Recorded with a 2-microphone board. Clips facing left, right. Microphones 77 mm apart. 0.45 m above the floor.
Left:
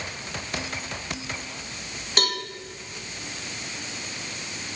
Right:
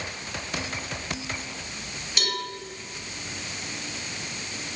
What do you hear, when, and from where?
2.2 s a cowbell: 50° left (ahead or behind), 1.5 m